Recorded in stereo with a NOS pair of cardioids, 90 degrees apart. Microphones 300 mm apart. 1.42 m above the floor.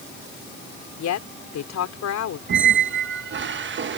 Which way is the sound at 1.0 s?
65° left.